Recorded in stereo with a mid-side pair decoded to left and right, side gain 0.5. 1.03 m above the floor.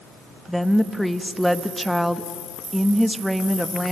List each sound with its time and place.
0.5 s a woman speaking: 5° right, 1.3 m